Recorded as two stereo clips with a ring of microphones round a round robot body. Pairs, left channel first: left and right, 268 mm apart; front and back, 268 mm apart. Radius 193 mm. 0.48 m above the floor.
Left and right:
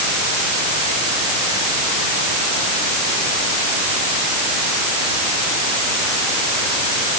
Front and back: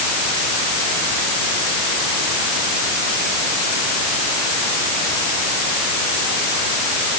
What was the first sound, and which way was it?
Only background noise.